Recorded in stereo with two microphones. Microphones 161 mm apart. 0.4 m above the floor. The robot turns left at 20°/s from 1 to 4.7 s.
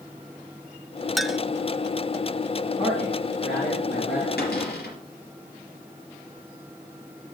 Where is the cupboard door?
85° left, 4 m; by 5.0 s 80° left, 4 m.